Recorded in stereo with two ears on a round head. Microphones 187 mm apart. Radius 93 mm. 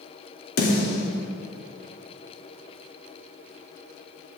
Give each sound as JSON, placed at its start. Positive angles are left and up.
{"t": 0.6, "sound": "a snare drum", "side_deg": 75, "distance_m": 3.0}